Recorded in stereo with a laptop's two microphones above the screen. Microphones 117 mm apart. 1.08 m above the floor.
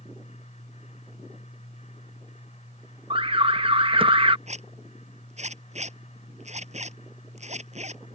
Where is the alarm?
50° right (ahead or behind).